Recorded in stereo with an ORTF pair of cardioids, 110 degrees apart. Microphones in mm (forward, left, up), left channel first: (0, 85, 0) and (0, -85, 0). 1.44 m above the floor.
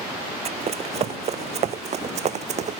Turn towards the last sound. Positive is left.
turn(degrees=-45)